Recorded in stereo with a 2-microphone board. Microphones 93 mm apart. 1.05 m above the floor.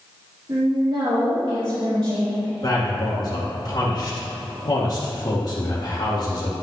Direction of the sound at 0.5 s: 75° right (ahead or behind).